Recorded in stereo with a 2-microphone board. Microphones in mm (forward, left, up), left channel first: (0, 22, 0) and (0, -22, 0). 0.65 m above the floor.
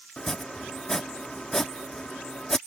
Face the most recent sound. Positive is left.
turn(degrees=15)  # may be behind; listen again after turning